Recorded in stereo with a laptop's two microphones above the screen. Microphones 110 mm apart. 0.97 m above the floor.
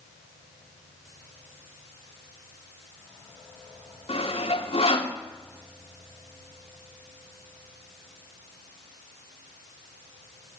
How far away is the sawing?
About 3 m.